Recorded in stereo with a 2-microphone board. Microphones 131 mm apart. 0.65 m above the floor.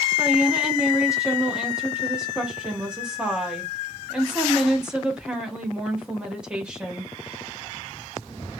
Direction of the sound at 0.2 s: 5° right (ahead or behind).